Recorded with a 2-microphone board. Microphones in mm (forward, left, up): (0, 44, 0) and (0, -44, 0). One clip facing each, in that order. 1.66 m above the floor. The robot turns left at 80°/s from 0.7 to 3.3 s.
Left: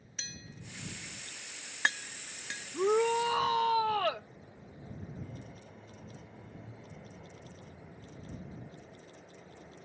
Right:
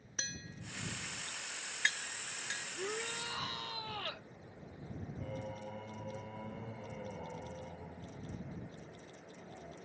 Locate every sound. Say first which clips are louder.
0.2 s tapping: right 2 dB; 40° right (ahead or behind); by 2.7 s 60° left (ahead or behind)
2.7 s a shout: left 16 dB; 110° left; by 4.3 s 65° left
5.2 s singing: right 5 dB; 80° right